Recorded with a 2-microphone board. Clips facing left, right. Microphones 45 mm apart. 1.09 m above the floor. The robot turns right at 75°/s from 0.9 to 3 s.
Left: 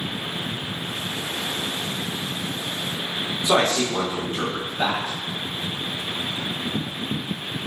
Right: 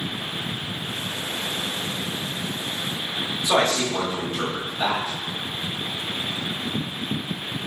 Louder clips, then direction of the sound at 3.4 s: Left 1 dB; 50° left (ahead or behind).